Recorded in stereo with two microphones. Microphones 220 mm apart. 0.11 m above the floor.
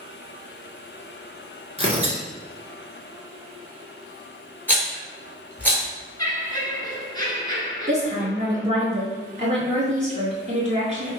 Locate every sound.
1.8 s tearing paper: 30° right (ahead or behind), 1.4 m
4.7 s a rattle: 10° left (ahead or behind), 1.7 m
6.2 s laughter: 20° left (ahead or behind), 1.3 m
7.9 s a woman speaking: 30° right (ahead or behind), 1.9 m